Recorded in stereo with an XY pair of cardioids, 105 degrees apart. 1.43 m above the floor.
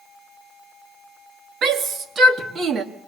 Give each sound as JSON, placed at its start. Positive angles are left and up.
{"t": 1.6, "sound": "a shout", "azimuth_deg": -60, "distance_m": 3.5}